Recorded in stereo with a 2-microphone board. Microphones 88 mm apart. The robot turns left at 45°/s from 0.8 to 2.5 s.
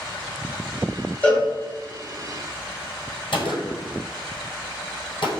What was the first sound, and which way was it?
A cowbell, 20° left (ahead or behind).